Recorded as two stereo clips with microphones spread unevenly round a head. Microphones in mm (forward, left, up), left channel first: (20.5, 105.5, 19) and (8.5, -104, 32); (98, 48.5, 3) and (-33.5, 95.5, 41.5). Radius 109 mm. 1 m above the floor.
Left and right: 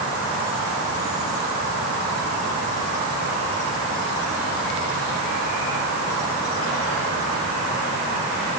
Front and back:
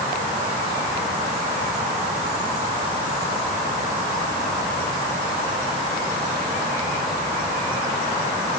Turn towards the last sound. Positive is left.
No sound to turn to.